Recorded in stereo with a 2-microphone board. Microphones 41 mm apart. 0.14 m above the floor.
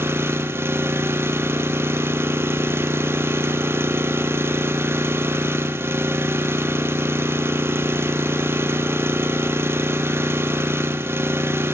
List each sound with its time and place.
0.0 s an engine running: 75° right (ahead or behind), 1.2 m